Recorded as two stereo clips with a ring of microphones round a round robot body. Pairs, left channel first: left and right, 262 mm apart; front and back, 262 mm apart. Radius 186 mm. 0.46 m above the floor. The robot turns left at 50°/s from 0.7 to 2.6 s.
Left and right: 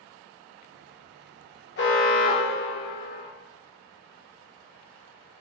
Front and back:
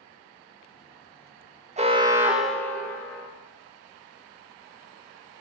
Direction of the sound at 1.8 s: 125° left.